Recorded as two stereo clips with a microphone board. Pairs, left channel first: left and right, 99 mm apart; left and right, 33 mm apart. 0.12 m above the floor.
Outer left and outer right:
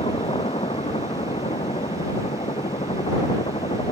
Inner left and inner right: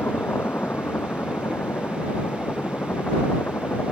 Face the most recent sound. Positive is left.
turn(degrees=80)